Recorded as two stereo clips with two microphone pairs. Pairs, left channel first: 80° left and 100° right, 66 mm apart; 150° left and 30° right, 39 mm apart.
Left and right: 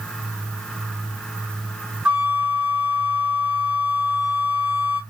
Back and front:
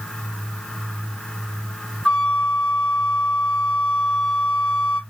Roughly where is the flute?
Behind.